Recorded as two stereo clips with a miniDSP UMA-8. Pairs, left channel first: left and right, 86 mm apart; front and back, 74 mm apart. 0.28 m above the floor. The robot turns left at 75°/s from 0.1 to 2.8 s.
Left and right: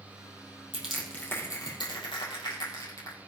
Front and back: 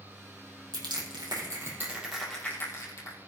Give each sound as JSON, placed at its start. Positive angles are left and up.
{"t": 0.7, "sound": "crushing", "azimuth_deg": -165, "distance_m": 4.0}